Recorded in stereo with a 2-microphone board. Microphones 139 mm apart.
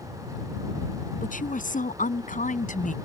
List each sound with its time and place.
1.2 s a woman speaking: 75° left (ahead or behind)